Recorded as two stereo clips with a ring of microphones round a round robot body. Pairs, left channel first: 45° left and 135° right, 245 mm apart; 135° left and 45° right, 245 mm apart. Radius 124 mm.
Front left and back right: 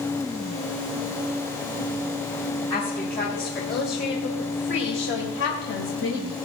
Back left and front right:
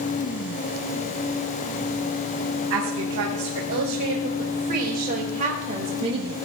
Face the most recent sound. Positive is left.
turn(degrees=25)